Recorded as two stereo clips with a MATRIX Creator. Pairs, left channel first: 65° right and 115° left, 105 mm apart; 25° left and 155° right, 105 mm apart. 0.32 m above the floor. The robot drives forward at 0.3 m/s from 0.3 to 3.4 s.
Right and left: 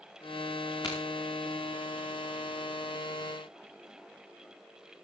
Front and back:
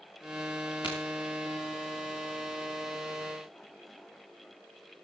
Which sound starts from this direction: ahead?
A crack, at 0.8 s.